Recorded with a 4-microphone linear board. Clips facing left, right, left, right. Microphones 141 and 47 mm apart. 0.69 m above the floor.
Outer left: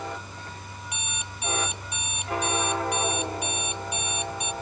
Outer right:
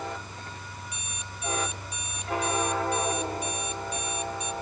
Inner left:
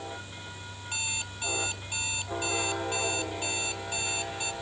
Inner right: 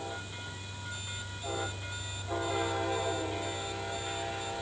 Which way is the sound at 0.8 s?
70° left (ahead or behind).